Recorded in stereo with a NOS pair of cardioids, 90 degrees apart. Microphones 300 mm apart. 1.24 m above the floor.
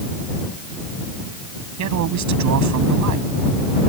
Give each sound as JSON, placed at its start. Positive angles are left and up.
{"t": 1.8, "sound": "a man speaking", "azimuth_deg": -70}